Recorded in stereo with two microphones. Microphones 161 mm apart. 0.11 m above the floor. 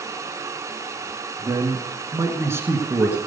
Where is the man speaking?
25° right (ahead or behind), 1.3 m; by 3.2 s 10° right (ahead or behind), 1.3 m.